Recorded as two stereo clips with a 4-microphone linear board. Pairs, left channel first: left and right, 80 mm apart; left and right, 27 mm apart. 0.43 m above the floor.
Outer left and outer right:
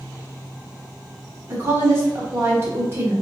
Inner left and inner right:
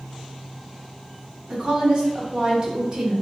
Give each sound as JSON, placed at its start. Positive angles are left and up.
{"t": 1.5, "sound": "a woman speaking", "side_deg": -35, "distance_m": 1.0}